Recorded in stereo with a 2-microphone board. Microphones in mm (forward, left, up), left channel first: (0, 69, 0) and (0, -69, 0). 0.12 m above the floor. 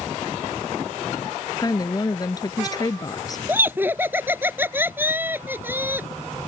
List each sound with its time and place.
1.6 s a woman speaking: 30° left (ahead or behind)
3.5 s laughter: 15° right (ahead or behind)